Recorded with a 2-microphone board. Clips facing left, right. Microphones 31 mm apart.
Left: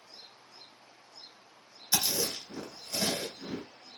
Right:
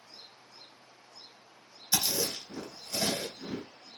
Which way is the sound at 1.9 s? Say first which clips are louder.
Even; 15° left (ahead or behind).